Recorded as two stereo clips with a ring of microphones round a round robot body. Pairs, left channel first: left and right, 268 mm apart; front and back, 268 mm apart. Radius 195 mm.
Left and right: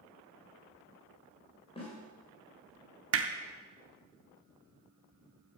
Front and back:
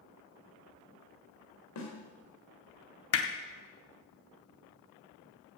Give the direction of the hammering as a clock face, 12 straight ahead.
1 o'clock.